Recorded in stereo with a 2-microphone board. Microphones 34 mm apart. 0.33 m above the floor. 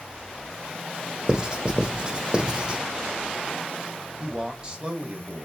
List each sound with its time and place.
1.3 s writing: 25° right (ahead or behind), 0.6 m
4.2 s a man speaking: 30° right (ahead or behind), 1.1 m